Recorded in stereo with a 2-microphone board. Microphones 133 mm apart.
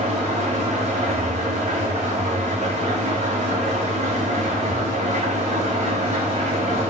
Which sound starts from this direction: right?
An engine running, at 0.0 s.